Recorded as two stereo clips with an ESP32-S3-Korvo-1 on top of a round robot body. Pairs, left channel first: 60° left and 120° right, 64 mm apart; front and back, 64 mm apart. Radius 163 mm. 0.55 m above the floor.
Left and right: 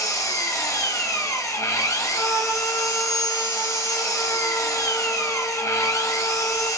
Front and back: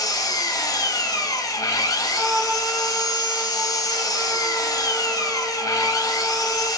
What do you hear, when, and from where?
0.0 s an engine running: 20° left, 0.8 m
2.1 s a trumpet: 170° left, 1.3 m